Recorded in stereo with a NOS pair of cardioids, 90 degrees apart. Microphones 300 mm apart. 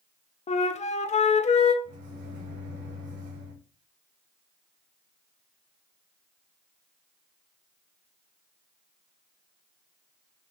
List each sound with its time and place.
0.5 s a flute: 25° left, 0.5 m
1.8 s a microwave: 60° right, 2.0 m